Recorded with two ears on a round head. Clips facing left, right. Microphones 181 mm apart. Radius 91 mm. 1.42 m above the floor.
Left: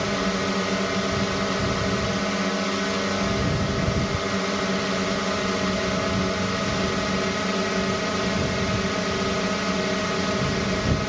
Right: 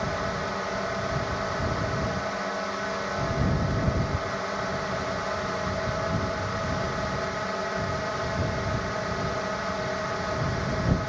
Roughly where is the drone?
Left.